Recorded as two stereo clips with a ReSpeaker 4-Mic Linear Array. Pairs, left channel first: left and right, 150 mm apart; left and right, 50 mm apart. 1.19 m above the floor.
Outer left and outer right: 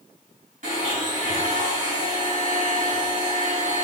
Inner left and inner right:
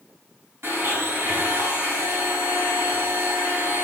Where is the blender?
60° right (ahead or behind), 4.5 m.